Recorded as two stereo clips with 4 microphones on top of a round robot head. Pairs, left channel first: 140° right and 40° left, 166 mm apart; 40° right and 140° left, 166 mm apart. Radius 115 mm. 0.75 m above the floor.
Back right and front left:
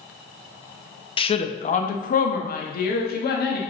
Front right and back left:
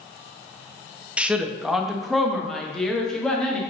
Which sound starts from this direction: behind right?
A woman speaking, at 1.2 s.